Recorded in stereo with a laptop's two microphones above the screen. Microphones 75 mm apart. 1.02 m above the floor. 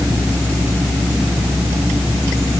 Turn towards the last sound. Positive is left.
No sound to turn to.